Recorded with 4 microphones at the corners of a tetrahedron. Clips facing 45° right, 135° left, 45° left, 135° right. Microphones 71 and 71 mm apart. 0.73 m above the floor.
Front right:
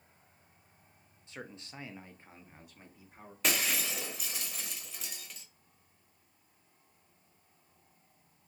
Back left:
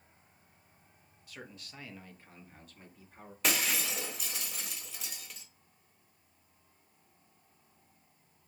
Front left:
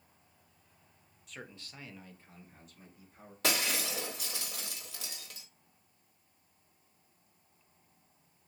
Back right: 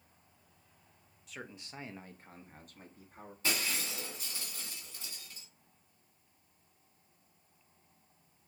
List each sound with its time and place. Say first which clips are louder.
1.3 s a man speaking: front right 3 dB, back right 2 dB; 45° right, 0.6 m; by 3.3 s 125° right, 1.4 m
3.4 s breaking glass: even, front left 3 dB; 45° left, 1.0 m